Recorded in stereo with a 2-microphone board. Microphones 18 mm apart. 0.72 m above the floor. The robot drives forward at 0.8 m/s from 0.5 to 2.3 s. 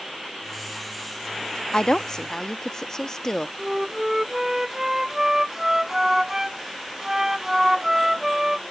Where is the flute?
20° right (ahead or behind).